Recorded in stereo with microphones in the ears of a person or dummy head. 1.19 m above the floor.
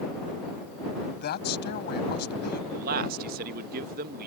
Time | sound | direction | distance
1.2 | a woman speaking | 50° left (ahead or behind) | ?
2.7 | a man speaking | 45° right (ahead or behind) | ?